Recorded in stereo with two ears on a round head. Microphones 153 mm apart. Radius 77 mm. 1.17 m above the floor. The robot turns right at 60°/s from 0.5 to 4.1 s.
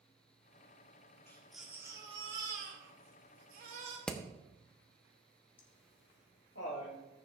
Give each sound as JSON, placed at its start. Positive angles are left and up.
{"t": 1.3, "sound": "a baby crying", "azimuth_deg": 165, "distance_m": 2.5}
{"t": 4.1, "sound": "hammering", "side_deg": 5, "distance_m": 0.9}
{"t": 5.6, "sound": "laughter", "side_deg": 75, "distance_m": 3.0}